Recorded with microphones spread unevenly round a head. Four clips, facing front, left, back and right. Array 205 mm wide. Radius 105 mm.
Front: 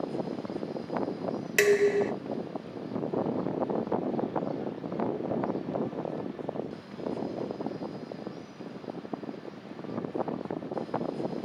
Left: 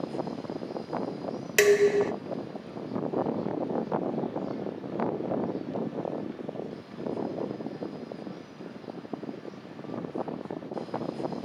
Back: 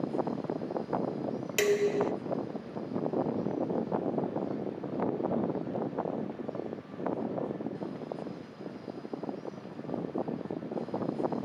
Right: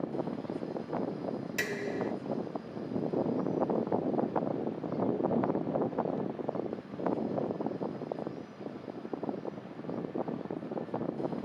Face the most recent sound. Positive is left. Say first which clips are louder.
# left 17 dB, front 4 dB
turn(degrees=80)